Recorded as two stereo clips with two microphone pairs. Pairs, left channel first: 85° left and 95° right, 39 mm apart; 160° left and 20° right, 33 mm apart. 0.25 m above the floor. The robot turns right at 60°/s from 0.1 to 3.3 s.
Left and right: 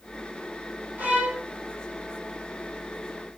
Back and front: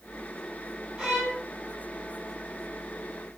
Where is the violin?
75° right, 2.5 m; by 1.4 s 50° right, 2.5 m.